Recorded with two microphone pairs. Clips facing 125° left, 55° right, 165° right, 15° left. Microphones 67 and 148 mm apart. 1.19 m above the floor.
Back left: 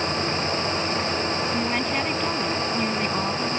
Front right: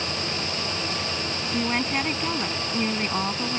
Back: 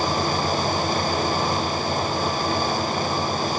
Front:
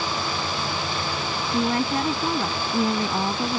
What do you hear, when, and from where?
1.5 s a woman speaking: 30° left